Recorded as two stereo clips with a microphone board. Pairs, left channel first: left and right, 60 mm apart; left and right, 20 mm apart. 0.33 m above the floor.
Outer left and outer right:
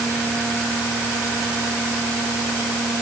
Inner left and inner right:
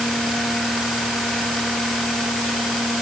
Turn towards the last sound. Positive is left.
No sound to turn to.